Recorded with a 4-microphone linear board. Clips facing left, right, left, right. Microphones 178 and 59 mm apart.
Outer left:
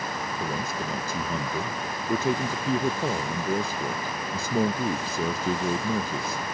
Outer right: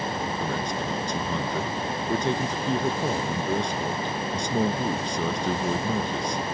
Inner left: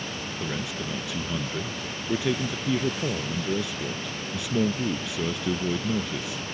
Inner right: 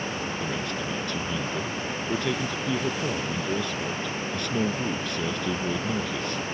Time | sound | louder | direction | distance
0.4 | a man speaking | outer right 2 dB, inner right 2 dB | 5° left (ahead or behind) | ?